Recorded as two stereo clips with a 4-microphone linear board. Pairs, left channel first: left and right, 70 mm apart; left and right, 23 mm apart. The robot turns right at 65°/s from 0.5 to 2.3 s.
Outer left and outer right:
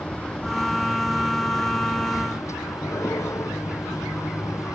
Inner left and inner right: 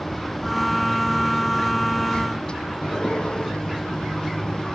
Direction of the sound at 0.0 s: 20° left.